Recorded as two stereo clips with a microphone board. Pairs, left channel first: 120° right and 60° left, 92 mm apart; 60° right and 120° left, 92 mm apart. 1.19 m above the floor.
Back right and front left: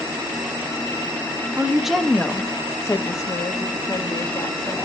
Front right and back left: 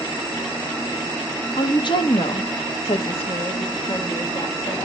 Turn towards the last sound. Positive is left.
turn(degrees=-90)